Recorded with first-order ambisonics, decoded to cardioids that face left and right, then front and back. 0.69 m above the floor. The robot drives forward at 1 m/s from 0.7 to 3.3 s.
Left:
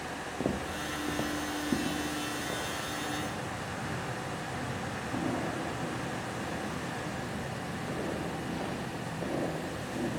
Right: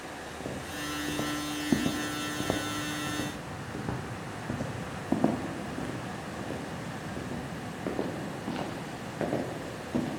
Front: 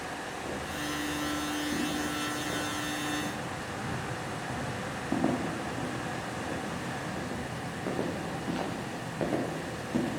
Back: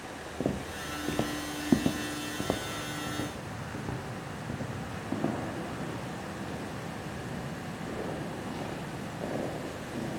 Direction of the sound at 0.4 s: 150° left.